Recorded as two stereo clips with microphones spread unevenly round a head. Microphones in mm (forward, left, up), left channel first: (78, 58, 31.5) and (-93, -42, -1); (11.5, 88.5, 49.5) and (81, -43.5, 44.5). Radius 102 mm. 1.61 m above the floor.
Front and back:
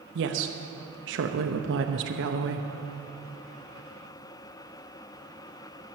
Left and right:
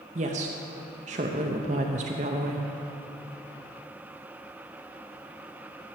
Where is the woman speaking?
115° right, 0.7 m.